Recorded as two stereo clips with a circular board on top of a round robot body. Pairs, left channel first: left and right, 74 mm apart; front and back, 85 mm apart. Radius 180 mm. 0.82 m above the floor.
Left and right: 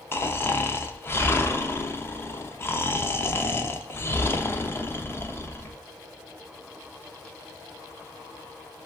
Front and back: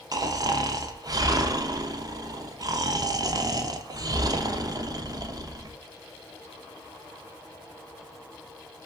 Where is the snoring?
145° left, 0.6 m.